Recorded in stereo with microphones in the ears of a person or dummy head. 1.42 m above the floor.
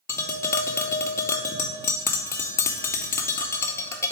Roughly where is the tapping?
Centre.